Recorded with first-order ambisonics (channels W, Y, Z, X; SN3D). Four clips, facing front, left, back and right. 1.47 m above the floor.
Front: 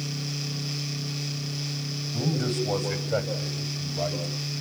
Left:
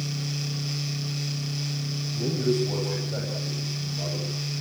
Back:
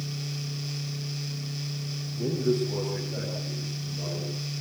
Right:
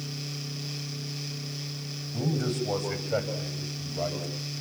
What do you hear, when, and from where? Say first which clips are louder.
2.1 s a man speaking: left 4 dB, back 2 dB; 30° right, 9.5 m; by 4.3 s 40° right, 9 m